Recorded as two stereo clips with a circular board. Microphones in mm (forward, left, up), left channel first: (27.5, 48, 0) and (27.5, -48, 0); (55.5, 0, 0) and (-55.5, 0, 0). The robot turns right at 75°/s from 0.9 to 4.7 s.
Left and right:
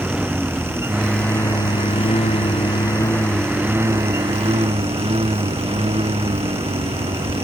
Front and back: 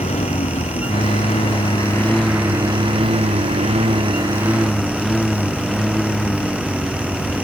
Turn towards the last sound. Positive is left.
turn(degrees=-90)